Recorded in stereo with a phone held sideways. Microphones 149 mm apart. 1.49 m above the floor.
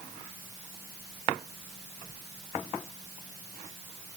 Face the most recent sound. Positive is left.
No sound to turn to.